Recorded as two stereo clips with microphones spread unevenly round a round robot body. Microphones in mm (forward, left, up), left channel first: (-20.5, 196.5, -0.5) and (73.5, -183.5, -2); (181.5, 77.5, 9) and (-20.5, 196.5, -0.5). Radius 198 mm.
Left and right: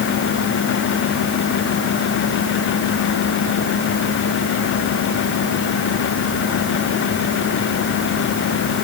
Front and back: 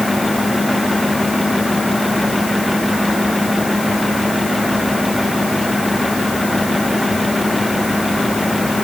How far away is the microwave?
I don't hear a microwave.